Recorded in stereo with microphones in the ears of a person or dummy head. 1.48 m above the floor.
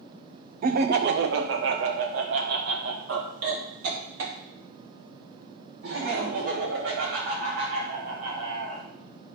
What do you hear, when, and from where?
0.6 s laughter: 45° right (ahead or behind), 0.7 m; by 8.8 s 80° right, 5 m